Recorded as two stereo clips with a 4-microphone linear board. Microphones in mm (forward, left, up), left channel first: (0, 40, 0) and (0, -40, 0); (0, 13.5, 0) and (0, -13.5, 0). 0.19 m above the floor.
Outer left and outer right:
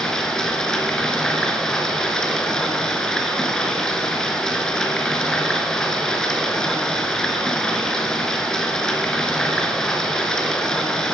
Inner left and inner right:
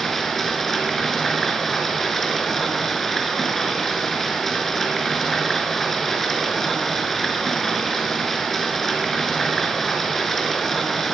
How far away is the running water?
About 1.2 m.